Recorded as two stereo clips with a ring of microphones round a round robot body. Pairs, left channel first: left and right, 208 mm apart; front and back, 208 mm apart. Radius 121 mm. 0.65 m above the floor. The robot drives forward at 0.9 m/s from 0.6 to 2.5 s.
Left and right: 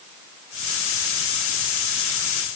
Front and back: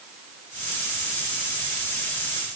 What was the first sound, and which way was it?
Only background noise.